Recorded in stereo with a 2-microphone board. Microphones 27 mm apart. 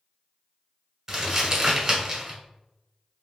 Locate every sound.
1.1 s crumpling: 15° right (ahead or behind), 0.9 m